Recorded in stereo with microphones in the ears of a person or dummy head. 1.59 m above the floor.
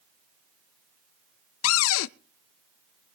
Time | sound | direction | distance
1.6 | a cupboard door | 70° left (ahead or behind) | 0.6 m